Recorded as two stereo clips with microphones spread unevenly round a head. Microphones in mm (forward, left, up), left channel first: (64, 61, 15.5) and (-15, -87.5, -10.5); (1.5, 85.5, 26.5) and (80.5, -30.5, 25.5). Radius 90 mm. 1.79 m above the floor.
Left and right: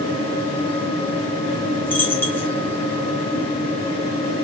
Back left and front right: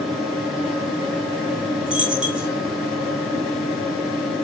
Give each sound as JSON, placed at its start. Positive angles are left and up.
{"t": 0.0, "sound": "a fan", "azimuth_deg": 30, "distance_m": 2.0}
{"t": 1.9, "sound": "a dropped coin", "azimuth_deg": 20, "distance_m": 1.4}